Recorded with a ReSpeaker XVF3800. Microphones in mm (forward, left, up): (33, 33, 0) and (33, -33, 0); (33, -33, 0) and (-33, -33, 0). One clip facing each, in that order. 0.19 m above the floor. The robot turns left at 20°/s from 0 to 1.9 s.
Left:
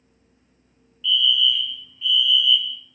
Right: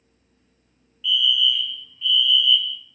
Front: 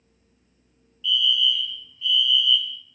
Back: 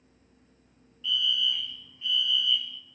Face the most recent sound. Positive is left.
turn(degrees=175)